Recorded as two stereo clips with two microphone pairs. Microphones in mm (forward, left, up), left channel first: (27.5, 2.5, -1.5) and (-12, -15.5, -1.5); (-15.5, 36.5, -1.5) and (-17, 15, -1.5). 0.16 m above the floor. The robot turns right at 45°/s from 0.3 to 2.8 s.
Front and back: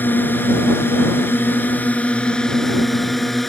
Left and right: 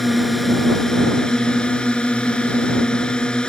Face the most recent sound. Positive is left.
turn(degrees=110)